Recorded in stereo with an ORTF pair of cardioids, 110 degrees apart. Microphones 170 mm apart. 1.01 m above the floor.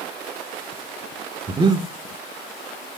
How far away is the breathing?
About 1.9 m.